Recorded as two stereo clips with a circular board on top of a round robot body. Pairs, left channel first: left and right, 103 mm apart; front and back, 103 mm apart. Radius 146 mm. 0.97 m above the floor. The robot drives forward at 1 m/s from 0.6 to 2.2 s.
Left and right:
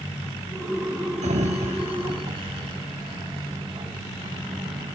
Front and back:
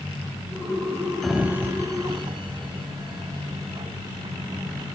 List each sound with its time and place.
1.2 s a sliding door: 85° right, 1.2 m; by 4.9 s 135° right, 1.5 m